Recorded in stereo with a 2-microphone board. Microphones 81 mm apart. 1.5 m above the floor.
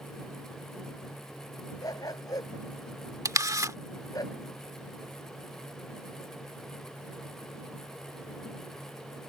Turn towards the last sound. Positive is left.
turn(degrees=-40)  # may be behind; listen again after turning